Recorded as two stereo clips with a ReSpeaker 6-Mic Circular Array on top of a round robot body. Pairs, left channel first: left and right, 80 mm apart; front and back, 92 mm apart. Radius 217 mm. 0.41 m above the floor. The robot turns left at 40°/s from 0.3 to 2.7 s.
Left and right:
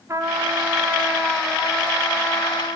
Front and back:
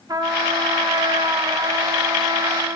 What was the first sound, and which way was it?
A trumpet, 140° right.